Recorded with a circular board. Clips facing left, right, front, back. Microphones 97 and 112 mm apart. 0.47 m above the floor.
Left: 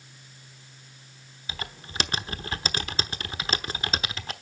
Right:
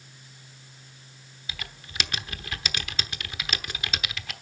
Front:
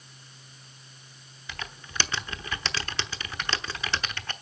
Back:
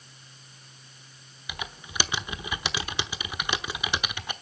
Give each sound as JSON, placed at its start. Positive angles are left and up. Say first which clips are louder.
{"t": 1.5, "sound": "typing on a keyboard", "louder": "left 4 dB, back 1 dB", "azimuth_deg": 115, "distance_m": 0.9}